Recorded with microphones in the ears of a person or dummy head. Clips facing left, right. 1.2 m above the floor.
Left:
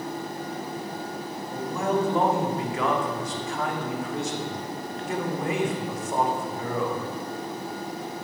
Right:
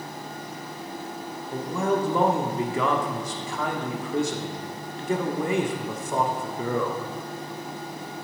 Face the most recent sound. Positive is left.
turn(degrees=-90)